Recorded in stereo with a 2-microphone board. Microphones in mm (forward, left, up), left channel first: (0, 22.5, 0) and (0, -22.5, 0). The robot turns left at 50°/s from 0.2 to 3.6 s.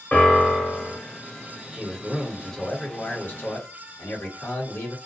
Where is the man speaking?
160° right, 1.2 m; by 5.0 s 110° left, 1.2 m.